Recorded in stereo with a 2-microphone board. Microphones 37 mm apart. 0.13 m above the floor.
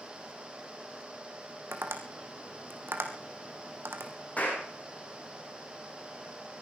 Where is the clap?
40° left (ahead or behind), 7 m.